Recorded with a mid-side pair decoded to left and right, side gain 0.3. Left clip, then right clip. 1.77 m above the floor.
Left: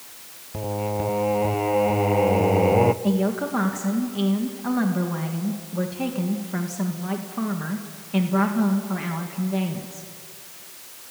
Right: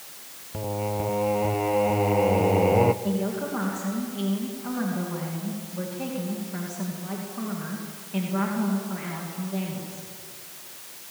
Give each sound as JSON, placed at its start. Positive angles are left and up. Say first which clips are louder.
{"t": 0.5, "sound": "singing", "louder": "left 2 dB", "azimuth_deg": 20, "distance_m": 0.9}
{"t": 3.0, "sound": "a woman speaking", "louder": "left 4 dB", "azimuth_deg": 65, "distance_m": 2.5}